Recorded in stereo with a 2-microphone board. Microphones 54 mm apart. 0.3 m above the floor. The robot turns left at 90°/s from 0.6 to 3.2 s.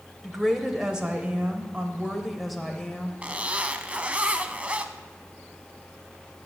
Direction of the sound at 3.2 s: 25° right (ahead or behind).